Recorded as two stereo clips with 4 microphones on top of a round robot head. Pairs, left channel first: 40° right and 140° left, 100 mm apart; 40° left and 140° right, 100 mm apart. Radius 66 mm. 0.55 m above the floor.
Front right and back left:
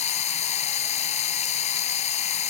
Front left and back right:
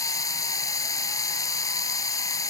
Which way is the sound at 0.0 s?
20° right.